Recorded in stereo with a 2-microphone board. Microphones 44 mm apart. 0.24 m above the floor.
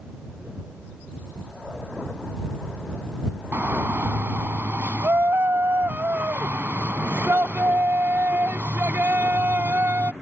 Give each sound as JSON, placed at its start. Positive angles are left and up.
{"t": 3.5, "sound": "a shout", "side_deg": -55}